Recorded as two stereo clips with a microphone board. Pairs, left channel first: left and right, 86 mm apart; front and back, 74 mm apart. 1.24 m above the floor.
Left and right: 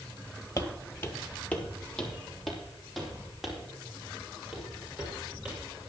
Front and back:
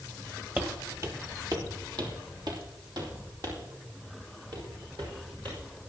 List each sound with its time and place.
0.6 s footsteps: 120° left, 1.6 m; by 5.6 s 170° right, 6.5 m